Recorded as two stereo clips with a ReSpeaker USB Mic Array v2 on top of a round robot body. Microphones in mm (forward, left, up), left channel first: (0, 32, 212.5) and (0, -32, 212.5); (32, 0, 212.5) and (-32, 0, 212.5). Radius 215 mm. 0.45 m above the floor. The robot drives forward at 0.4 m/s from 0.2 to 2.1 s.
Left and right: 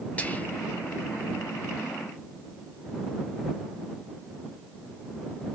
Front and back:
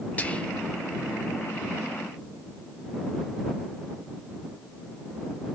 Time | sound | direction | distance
0.2 | whispering | 45° left | 0.9 m